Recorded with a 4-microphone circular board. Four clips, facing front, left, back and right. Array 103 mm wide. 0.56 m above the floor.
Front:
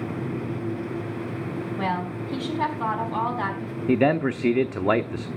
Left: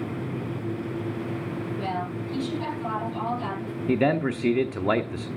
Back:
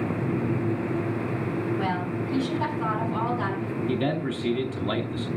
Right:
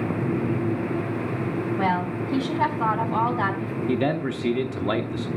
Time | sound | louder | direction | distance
1.8 | a woman speaking | right 7 dB, even | 70° right | 5 m
3.9 | a man speaking | left 2 dB, front 8 dB | 15° left | 0.8 m